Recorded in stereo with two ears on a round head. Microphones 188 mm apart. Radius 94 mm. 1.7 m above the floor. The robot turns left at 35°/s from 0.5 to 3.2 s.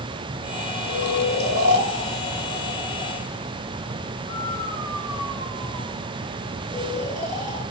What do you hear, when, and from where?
0.8 s snoring: 75° left (ahead or behind), 1.7 m; by 7.6 s 20° left (ahead or behind), 1.7 m